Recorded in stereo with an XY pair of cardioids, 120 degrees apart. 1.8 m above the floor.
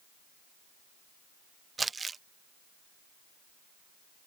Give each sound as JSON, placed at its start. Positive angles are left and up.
{"t": 1.8, "sound": "crumpling", "azimuth_deg": -25}